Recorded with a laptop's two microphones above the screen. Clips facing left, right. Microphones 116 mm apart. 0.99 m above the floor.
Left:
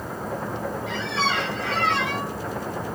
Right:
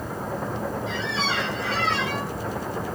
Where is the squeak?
60° left (ahead or behind), 2.5 m.